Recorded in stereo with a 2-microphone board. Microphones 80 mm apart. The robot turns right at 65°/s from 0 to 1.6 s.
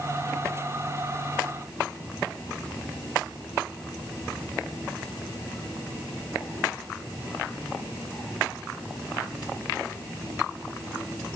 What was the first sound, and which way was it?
Only background noise.